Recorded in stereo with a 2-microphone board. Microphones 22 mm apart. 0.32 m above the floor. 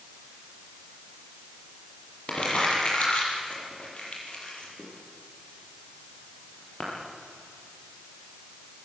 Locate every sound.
2.3 s crumpling: 45° left (ahead or behind), 7.5 m